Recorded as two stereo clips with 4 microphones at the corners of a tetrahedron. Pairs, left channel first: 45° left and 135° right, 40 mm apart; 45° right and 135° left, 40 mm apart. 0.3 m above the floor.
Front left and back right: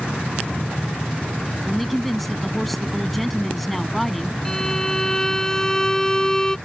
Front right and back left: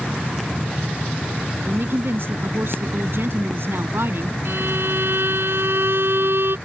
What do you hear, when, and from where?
1.6 s a woman speaking: 130° left
4.5 s a violin: 120° left